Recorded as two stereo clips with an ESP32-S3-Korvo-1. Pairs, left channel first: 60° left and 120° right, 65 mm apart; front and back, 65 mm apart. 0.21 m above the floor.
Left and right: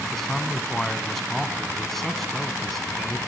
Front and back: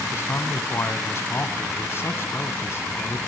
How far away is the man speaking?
About 1.4 m.